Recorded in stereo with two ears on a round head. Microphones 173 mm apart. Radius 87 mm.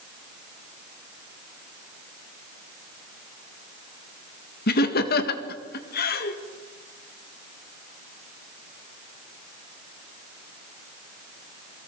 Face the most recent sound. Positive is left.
turn(degrees=55)  # may be behind; listen again after turning